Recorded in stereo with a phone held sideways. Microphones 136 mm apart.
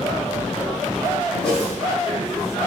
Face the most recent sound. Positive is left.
turn(degrees=5)  # may be behind; listen again after turning